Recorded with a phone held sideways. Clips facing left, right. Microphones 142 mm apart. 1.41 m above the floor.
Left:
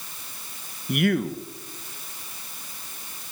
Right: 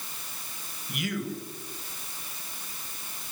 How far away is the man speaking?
About 1.6 m.